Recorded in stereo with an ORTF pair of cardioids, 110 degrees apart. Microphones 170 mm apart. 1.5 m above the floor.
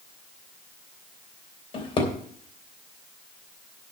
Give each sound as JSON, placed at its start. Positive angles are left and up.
{"t": 1.7, "sound": "a drawer", "azimuth_deg": 35, "distance_m": 3.0}